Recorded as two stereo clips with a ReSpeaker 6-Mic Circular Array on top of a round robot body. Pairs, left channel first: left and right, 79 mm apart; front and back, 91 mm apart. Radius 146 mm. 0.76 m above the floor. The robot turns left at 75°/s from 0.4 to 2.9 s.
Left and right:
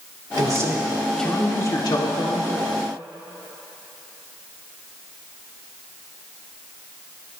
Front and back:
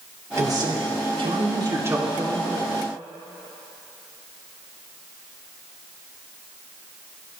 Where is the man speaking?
130° right, 2.5 m; by 2.5 s 75° left, 2.5 m.